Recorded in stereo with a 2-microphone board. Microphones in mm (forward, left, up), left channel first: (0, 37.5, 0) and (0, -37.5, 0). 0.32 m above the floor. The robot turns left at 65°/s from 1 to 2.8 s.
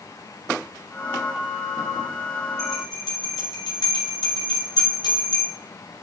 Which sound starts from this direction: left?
A bell, at 2.6 s.